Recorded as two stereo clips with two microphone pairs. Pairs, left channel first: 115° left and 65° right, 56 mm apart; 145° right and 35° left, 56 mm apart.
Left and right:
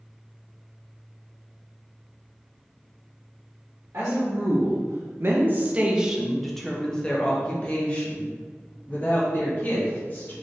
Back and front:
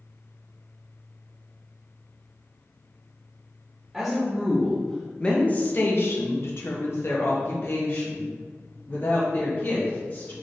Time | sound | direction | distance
3.9 | a woman speaking | 50° right | 1.1 m